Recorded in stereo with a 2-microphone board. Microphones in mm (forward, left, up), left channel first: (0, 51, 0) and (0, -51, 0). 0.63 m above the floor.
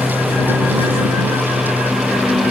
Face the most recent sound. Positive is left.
turn(degrees=0)  # may be behind; listen again after turning